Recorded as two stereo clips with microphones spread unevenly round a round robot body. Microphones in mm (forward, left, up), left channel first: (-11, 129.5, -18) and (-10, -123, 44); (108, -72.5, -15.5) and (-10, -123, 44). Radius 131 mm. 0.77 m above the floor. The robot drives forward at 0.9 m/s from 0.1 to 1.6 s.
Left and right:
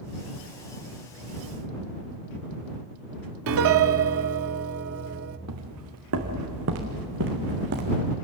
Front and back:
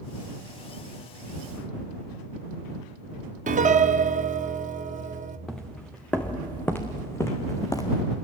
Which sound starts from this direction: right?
Footsteps, at 5.5 s.